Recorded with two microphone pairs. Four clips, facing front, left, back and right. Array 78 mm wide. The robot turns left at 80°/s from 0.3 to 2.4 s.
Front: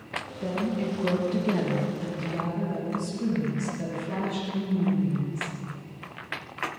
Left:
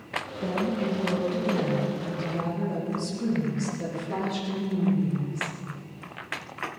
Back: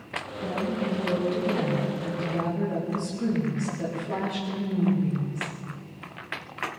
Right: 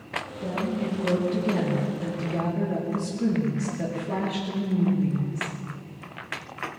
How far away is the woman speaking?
About 7 m.